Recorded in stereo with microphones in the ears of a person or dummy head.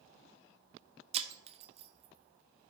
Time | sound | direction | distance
1.1 | breaking glass | 40° right (ahead or behind) | 0.9 m